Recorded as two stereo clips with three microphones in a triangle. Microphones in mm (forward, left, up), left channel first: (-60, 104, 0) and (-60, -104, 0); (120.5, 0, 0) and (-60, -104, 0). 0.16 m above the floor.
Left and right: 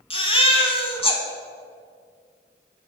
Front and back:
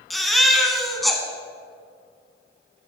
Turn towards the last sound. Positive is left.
turn(degrees=120)